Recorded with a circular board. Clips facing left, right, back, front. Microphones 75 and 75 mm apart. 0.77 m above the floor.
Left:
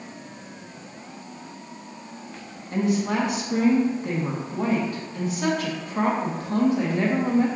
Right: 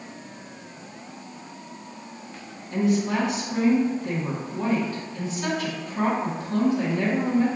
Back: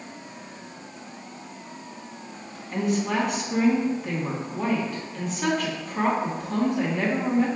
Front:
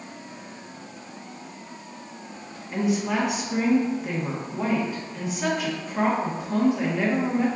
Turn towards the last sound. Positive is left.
turn(degrees=80)